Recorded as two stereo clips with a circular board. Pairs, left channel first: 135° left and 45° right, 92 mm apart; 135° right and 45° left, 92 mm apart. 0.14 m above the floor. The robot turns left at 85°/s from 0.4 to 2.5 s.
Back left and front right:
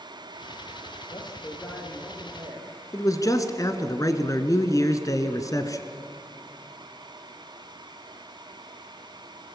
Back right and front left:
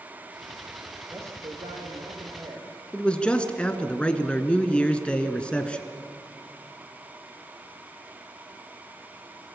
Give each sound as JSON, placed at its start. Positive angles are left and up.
{"t": 1.1, "sound": "a man speaking", "azimuth_deg": 115, "distance_m": 4.5}
{"t": 2.9, "sound": "a man speaking", "azimuth_deg": 155, "distance_m": 1.6}